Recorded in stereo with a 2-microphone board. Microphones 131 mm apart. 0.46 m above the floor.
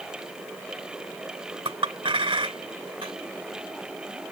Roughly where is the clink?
Right.